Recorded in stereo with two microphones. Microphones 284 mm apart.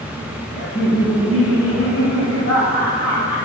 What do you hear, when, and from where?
0.6 s laughter: 35° left (ahead or behind), 3 m; by 3.4 s 75° left (ahead or behind), 5.5 m